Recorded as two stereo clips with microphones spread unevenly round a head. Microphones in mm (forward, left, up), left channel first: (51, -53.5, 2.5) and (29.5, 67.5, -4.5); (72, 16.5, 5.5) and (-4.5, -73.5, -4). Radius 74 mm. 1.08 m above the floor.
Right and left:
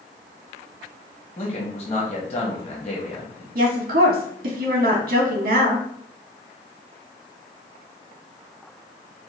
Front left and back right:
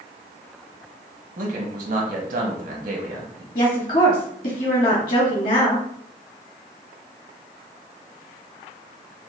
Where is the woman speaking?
90° left, 1.3 m.